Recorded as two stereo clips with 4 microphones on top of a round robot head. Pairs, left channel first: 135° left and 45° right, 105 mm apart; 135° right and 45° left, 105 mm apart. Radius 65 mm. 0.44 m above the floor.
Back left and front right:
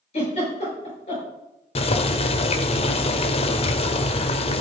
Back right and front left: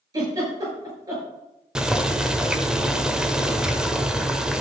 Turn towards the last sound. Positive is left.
turn(degrees=130)